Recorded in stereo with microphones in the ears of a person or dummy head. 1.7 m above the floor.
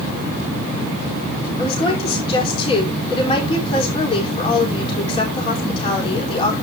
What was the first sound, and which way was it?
A woman speaking, 30° left (ahead or behind).